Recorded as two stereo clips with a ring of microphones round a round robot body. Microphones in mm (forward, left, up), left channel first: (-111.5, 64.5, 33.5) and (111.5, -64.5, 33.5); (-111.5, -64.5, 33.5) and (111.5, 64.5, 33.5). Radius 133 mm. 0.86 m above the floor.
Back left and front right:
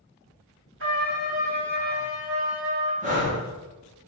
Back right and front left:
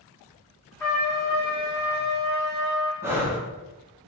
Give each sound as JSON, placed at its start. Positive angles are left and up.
{"t": 0.8, "sound": "a trumpet", "azimuth_deg": -70, "distance_m": 1.9}
{"t": 3.0, "sound": "breathing", "azimuth_deg": -40, "distance_m": 1.0}